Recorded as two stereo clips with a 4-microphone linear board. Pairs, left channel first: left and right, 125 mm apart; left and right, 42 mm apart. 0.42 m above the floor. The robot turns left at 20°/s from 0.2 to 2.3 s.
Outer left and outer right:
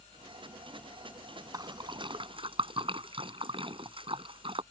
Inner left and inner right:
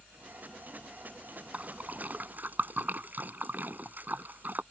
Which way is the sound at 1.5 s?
30° right (ahead or behind).